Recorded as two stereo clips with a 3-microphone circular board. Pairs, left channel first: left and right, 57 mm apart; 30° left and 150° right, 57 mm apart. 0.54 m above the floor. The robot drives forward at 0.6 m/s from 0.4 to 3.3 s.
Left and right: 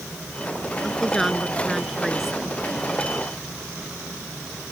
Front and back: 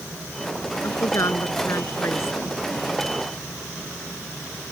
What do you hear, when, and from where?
0.8 s a woman speaking: straight ahead